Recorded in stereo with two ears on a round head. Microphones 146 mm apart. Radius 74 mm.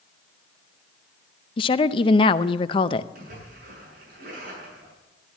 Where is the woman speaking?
30° left (ahead or behind), 0.6 m.